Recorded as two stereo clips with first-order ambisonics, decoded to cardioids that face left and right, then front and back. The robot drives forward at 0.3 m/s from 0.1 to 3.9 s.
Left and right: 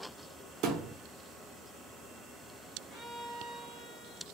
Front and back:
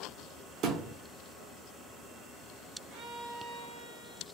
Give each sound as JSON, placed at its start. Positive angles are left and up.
{"t": 0.6, "sound": "a thud", "azimuth_deg": -130, "distance_m": 0.8}
{"t": 2.9, "sound": "a violin", "azimuth_deg": 155, "distance_m": 1.7}